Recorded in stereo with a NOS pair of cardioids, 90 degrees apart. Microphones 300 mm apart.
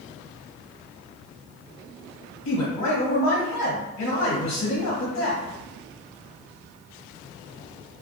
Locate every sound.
2.5 s a man speaking: 60° left, 1.1 m